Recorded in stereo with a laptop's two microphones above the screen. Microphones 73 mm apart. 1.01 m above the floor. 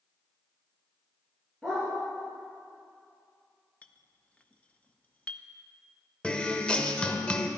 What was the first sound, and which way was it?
A dog barking, 10° left (ahead or behind).